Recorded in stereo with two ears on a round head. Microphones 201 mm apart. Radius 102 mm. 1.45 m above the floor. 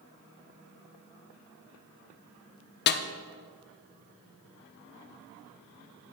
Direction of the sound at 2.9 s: 45° left (ahead or behind).